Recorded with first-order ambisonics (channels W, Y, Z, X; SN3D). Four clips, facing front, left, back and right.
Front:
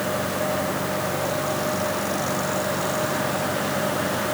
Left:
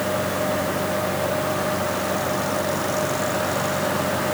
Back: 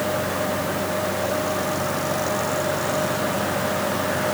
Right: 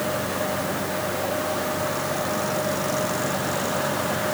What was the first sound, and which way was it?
Only background noise.